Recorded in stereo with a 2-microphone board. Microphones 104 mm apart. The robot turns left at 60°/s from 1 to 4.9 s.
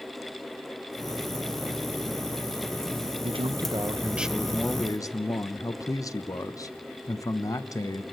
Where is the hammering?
I don't hear hammering.